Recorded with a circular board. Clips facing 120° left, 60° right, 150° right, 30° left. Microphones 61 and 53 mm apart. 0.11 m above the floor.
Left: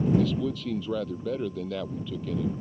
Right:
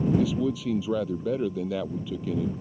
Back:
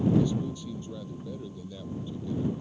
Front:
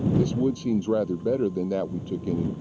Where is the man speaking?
20° left.